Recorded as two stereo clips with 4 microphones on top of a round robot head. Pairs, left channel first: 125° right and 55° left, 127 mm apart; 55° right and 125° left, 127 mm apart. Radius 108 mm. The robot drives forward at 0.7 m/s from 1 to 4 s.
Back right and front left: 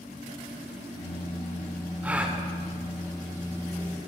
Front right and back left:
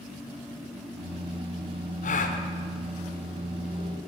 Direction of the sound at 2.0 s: 25° right.